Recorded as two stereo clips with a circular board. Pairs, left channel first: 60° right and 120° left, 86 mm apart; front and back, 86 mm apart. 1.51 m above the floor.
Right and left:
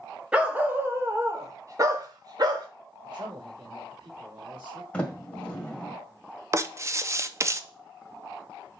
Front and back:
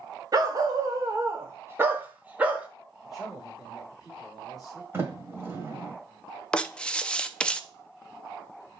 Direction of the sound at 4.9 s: 130° right.